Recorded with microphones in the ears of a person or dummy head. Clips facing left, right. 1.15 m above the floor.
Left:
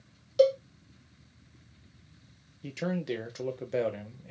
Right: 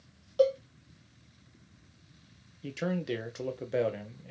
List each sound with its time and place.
0.4 s a cowbell: 30° left (ahead or behind), 1.0 m
2.6 s a man speaking: centre (ahead or behind), 0.7 m